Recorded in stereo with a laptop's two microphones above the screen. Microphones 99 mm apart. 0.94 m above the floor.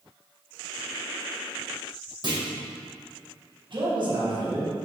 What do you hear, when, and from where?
2.2 s a clunk: 45° right (ahead or behind), 1.1 m
3.7 s a man speaking: 55° right (ahead or behind), 1.2 m